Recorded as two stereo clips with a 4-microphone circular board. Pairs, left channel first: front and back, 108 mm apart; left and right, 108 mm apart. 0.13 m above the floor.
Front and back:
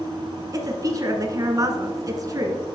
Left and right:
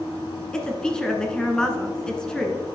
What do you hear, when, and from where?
0.5 s a woman speaking: 165° left, 1.2 m